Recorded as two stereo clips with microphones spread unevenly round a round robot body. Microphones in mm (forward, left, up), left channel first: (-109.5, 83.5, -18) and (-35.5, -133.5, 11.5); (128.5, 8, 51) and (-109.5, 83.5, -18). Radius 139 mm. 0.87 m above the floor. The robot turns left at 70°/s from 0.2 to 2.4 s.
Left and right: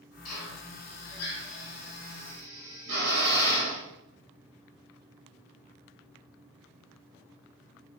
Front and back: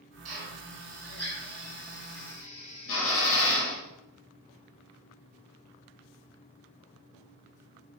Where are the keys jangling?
No keys jangling in this recording.